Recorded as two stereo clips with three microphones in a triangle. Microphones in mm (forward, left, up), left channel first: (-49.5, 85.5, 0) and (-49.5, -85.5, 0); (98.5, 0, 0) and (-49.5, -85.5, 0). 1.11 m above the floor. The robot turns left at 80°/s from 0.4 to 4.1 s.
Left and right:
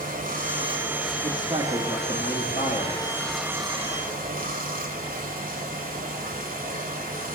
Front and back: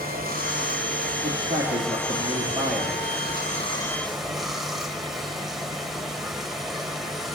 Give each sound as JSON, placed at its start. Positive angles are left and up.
{"t": 0.0, "sound": "running water", "azimuth_deg": -125, "distance_m": 1.8}
{"t": 1.2, "sound": "a man speaking", "azimuth_deg": -120, "distance_m": 2.0}